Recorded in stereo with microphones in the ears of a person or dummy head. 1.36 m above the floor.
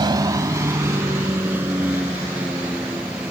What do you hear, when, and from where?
0.0 s a vehicle: 20° right (ahead or behind); by 3.3 s 5° right (ahead or behind)